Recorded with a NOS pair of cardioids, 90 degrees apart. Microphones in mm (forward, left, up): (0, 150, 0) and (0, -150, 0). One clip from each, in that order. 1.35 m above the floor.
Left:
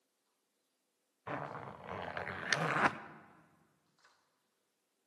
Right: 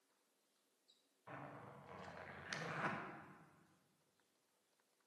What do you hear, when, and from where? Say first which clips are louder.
1.3 s a zipper: left 12 dB; 70° left, 0.7 m